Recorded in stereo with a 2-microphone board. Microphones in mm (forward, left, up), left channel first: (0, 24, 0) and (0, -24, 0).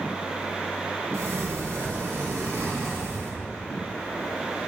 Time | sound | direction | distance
1.1 | a sliding door | 70° right (ahead or behind) | 2 m